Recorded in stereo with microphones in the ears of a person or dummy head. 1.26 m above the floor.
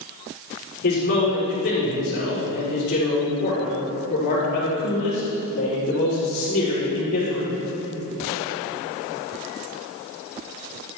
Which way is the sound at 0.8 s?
60° left (ahead or behind).